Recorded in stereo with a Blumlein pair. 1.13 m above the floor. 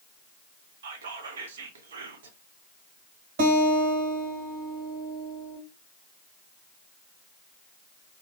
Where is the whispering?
65° right, 0.6 m.